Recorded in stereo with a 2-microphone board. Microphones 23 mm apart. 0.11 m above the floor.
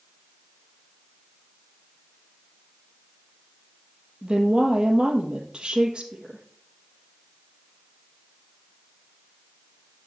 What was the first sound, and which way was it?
A woman speaking, 55° right (ahead or behind).